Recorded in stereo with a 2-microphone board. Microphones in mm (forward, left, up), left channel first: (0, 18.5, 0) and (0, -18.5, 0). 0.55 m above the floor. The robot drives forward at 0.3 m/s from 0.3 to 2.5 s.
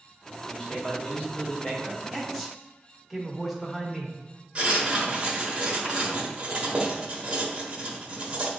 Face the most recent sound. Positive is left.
turn(degrees=-30)  # may be behind; listen again after turning